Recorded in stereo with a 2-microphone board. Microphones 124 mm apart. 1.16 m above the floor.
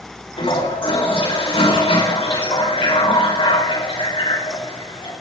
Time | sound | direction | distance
0.4 | a toilet flushing | 50° left (ahead or behind) | 4.5 m